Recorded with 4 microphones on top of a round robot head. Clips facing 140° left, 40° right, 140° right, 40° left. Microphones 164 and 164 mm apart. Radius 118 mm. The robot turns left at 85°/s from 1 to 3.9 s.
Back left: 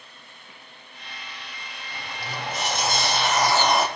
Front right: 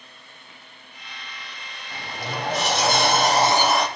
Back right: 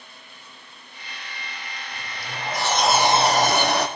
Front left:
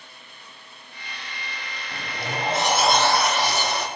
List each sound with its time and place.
1.9 s a sliding door: 30° left, 0.8 m; by 3.9 s 135° right, 0.8 m